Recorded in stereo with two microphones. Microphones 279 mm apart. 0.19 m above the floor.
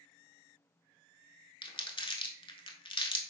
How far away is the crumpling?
About 0.8 m.